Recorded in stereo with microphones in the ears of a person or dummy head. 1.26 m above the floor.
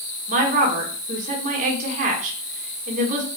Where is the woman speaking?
30° right (ahead or behind), 1.3 m.